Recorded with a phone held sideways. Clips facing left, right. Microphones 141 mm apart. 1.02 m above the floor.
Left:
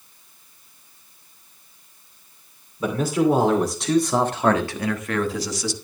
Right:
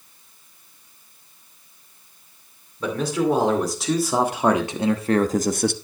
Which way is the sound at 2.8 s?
10° left (ahead or behind).